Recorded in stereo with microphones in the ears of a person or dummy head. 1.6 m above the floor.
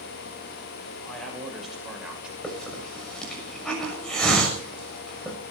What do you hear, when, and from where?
1.1 s a man speaking: 10° left (ahead or behind), 7.5 m; by 2.3 s centre (ahead or behind), 6.5 m
2.4 s a hiss: 10° left (ahead or behind), 6.5 m